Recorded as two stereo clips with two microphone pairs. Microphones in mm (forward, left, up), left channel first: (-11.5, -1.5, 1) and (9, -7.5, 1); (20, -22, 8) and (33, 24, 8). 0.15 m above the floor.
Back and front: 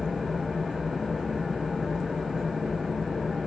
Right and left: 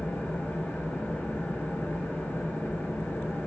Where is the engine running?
75° right, 2.5 m.